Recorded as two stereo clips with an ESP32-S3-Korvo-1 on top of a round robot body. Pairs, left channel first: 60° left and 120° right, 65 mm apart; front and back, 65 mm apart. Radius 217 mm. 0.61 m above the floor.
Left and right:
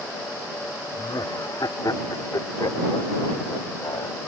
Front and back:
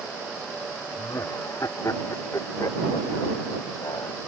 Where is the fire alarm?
I don't hear a fire alarm.